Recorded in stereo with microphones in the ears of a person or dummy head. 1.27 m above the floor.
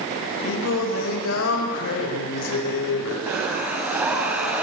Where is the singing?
80° left, 5.5 m.